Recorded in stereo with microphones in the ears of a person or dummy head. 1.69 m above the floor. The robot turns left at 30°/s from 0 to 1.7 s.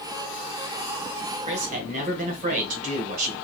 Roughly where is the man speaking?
Right.